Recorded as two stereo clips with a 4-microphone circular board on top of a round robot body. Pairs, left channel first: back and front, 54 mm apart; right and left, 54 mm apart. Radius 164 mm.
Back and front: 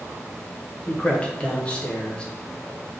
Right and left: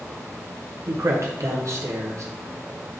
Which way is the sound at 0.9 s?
110° left.